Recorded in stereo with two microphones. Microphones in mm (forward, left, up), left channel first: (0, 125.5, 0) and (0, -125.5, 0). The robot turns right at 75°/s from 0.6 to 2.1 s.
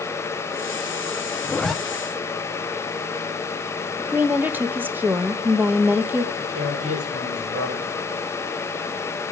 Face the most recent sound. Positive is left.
turn(degrees=-75)  # may be behind; listen again after turning